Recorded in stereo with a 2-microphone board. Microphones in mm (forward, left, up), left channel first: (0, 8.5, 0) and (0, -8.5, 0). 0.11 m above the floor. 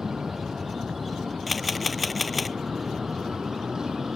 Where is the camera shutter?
Centre (ahead or behind).